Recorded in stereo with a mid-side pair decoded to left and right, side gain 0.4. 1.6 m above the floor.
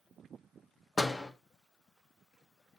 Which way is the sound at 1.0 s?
30° left.